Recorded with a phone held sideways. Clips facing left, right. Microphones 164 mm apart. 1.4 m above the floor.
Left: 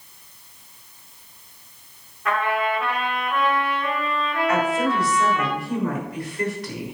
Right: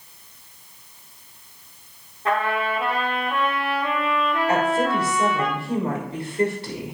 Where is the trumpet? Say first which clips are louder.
Even; 30° right (ahead or behind), 4 m.